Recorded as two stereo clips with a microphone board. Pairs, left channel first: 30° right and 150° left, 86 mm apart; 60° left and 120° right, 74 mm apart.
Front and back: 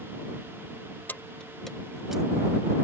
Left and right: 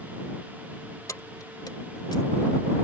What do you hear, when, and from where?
1.1 s keys jangling: 35° left; by 2.2 s 70° left